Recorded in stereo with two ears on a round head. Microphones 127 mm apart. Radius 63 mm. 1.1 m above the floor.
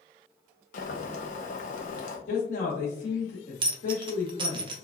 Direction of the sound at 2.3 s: 55° left (ahead or behind).